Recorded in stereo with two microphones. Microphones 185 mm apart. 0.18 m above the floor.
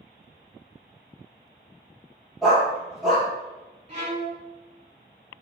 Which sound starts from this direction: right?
A violin, at 3.9 s.